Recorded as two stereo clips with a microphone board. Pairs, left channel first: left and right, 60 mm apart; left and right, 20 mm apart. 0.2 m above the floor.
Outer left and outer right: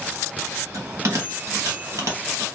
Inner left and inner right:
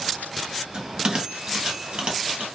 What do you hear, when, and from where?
0.7 s a bell: 60° right (ahead or behind), 1.2 m